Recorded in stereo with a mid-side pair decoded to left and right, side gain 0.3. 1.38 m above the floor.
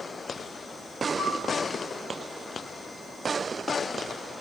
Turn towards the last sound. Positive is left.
turn(degrees=65)